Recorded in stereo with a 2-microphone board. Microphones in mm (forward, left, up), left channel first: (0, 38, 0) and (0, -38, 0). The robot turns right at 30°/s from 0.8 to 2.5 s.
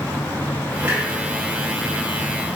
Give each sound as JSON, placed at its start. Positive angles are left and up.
{"t": 0.8, "sound": "a clunk", "side_deg": -20, "distance_m": 3.0}